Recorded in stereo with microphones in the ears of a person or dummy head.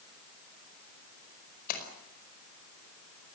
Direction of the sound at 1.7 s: 50° left (ahead or behind).